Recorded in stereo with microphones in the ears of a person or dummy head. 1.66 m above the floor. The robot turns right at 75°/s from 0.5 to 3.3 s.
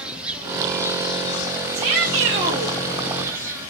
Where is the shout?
110° right, 3.5 m; by 2.8 s 30° right, 3.5 m.